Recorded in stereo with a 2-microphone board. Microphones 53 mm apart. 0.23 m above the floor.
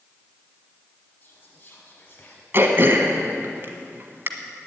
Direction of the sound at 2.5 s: 45° right (ahead or behind).